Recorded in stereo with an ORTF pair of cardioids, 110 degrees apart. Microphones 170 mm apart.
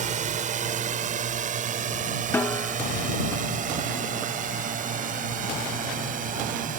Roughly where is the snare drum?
Ahead.